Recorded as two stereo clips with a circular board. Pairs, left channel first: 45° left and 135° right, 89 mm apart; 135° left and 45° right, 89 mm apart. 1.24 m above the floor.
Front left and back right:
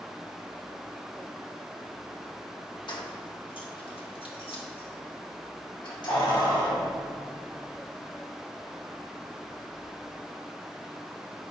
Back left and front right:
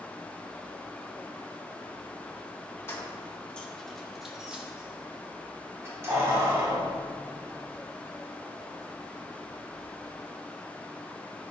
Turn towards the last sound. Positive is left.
turn(degrees=-5)